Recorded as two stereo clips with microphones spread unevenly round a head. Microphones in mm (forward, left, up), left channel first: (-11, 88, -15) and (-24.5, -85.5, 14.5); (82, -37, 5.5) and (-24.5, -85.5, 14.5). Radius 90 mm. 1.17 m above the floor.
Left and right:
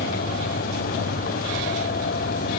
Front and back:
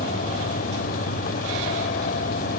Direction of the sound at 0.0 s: 40° left.